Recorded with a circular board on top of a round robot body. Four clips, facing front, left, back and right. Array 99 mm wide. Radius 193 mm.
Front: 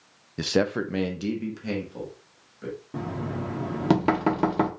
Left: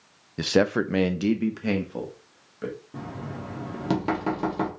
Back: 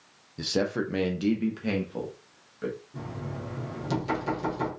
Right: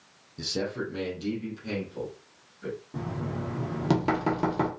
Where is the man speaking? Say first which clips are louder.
Left 10 dB, front 3 dB; 50° left, 0.5 m; by 2.8 s 115° left, 1.8 m.